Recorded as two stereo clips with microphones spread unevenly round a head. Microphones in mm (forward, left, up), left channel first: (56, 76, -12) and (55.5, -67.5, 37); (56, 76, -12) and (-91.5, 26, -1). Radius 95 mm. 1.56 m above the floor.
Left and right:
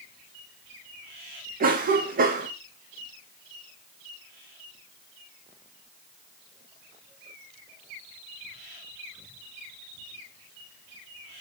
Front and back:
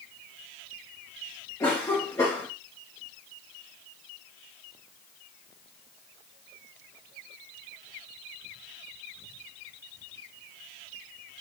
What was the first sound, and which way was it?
A cough, 60° right.